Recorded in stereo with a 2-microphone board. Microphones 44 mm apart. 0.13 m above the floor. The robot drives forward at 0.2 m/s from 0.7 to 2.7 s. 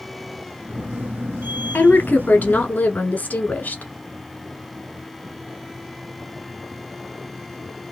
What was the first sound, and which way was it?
A woman speaking, 35° left (ahead or behind).